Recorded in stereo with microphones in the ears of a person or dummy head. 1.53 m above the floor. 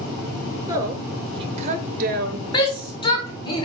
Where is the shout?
25° left (ahead or behind), 1.7 m.